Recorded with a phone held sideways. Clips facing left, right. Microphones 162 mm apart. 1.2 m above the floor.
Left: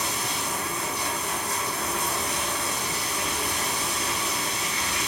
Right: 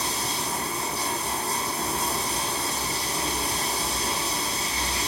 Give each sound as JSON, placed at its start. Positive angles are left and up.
{"t": 0.0, "sound": "running water", "side_deg": -35, "distance_m": 4.0}